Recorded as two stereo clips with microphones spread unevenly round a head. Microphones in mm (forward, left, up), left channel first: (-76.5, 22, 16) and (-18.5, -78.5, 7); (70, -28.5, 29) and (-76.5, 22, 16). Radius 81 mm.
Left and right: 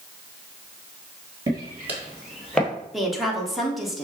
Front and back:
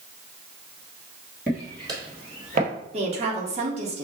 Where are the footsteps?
115° right, 1.7 m; by 2.7 s 165° right, 2.0 m.